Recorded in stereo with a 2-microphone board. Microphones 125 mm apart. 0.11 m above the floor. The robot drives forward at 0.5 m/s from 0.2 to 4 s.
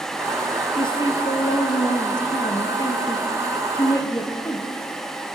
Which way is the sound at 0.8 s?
40° left (ahead or behind).